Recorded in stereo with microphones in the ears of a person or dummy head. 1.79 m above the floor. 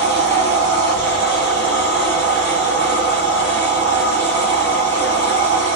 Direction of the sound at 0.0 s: 35° right (ahead or behind).